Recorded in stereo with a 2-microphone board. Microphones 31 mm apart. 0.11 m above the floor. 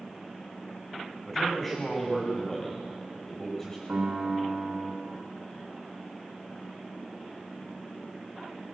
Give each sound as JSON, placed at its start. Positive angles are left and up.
{"t": 1.3, "sound": "a man speaking", "side_deg": 10, "distance_m": 7.5}
{"t": 3.9, "sound": "a piano", "side_deg": -60, "distance_m": 4.0}